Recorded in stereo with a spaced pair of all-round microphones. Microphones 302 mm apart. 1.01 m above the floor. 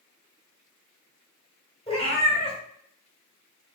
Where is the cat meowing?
20° left (ahead or behind), 1.0 m.